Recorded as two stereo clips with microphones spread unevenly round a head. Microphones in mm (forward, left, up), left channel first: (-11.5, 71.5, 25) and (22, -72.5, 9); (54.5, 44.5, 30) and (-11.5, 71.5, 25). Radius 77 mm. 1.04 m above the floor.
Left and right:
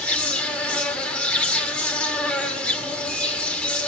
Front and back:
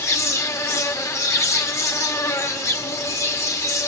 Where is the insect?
20° left, 1.8 m.